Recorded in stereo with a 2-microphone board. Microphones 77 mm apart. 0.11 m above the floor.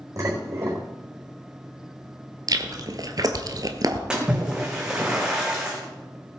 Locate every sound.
0.2 s dishes clattering: 40° right (ahead or behind), 4.5 m
2.5 s chewing: 50° right (ahead or behind), 1.3 m
4.1 s a splash: 10° right (ahead or behind), 2.5 m